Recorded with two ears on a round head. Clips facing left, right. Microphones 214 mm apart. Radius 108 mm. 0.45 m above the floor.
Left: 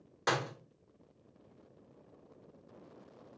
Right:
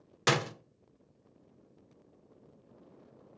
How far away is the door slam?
About 0.6 m.